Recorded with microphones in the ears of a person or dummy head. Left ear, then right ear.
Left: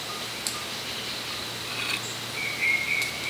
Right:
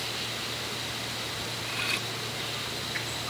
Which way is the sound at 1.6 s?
5° right (ahead or behind).